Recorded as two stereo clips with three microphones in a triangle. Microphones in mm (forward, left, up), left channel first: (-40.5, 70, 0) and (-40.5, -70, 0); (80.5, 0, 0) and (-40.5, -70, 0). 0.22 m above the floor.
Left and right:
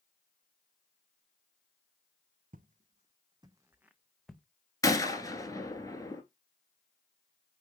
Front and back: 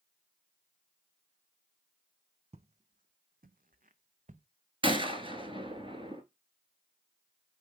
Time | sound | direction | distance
2.5 | footsteps | 105° right | 0.6 m
4.8 | a gunshot | 155° left | 1.1 m